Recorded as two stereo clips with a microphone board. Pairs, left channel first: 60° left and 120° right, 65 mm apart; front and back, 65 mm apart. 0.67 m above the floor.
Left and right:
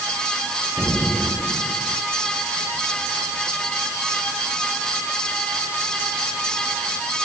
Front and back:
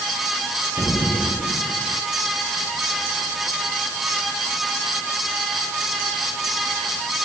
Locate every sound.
0.8 s an explosion: 5° right